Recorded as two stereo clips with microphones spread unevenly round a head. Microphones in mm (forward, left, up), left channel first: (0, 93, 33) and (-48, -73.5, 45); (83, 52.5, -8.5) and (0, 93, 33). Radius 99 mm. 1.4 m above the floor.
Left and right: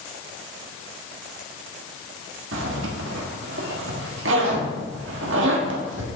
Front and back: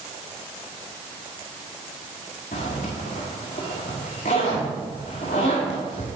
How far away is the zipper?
About 1.5 m.